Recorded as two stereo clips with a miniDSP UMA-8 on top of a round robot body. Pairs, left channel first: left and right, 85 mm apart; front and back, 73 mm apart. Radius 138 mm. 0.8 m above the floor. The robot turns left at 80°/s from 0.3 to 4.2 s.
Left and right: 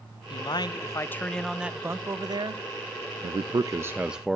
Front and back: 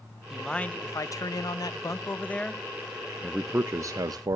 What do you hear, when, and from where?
0.3 s a man speaking: 95° left, 0.8 m; by 2.6 s 95° right, 0.8 m
3.2 s a man speaking: 95° right, 0.7 m; by 4.4 s 175° right, 0.7 m